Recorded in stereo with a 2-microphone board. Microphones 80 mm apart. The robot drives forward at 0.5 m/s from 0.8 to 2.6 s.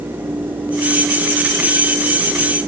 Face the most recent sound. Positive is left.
No sound to turn to.